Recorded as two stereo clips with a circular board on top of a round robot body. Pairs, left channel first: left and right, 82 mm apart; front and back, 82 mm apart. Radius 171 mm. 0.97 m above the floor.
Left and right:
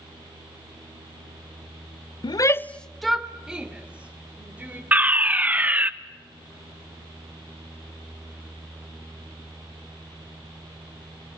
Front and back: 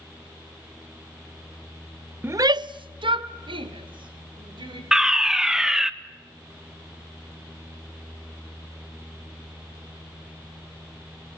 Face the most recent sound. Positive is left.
turn(degrees=-110)